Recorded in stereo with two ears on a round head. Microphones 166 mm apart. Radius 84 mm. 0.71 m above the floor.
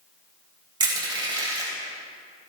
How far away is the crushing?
About 3 m.